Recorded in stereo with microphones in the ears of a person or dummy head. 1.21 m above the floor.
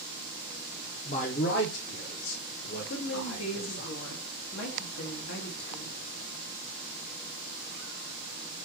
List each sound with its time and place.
1.1 s a man speaking: 30° left (ahead or behind), 0.6 m; by 3.9 s 80° left, 2.5 m
2.9 s a woman speaking: 75° left (ahead or behind), 1.5 m